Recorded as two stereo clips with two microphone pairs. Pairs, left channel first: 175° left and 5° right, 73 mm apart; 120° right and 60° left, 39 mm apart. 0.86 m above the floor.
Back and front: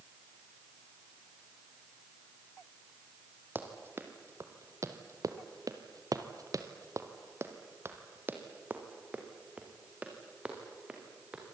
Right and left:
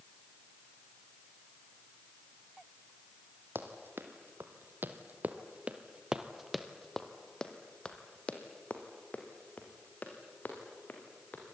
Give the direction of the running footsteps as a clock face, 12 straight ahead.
10 o'clock.